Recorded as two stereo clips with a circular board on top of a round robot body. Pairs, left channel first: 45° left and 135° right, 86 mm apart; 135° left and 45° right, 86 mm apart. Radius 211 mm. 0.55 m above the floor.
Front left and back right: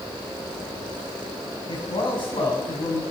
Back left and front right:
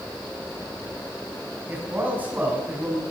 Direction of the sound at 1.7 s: 25° left.